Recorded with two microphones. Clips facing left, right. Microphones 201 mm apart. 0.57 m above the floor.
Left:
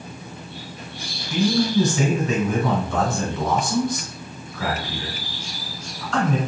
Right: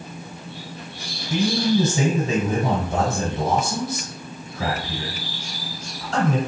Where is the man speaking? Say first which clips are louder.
Left 1 dB; 40° right (ahead or behind), 1.6 m.